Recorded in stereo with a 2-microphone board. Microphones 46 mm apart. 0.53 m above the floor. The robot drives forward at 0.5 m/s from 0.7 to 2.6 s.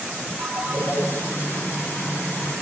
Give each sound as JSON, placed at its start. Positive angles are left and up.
{"t": 0.4, "sound": "a ringtone", "side_deg": -65, "distance_m": 9.0}